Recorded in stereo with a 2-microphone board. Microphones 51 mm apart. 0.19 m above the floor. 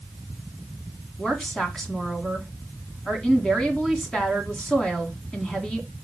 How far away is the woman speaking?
About 1.7 m.